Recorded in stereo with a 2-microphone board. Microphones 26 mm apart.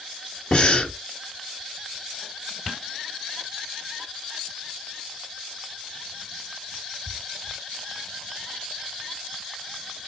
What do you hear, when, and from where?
0.5 s breathing: 40° left (ahead or behind), 1.0 m